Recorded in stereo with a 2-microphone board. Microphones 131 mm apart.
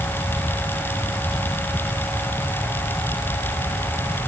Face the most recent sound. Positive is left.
No sound to turn to.